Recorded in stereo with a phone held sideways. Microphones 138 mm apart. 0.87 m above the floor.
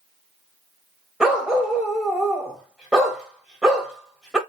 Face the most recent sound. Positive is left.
turn(degrees=-5)  # may be behind; listen again after turning